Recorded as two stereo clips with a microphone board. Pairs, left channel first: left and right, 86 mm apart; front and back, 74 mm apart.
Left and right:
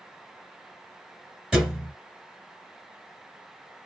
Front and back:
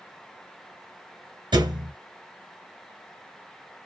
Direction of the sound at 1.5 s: 170° right.